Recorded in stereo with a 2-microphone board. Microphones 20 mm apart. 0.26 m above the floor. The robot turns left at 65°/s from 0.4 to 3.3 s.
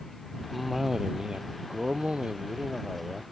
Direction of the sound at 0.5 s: Straight ahead.